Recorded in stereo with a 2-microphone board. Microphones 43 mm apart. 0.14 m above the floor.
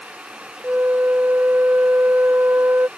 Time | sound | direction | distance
0.6 | a flute | 70° right (ahead or behind) | ?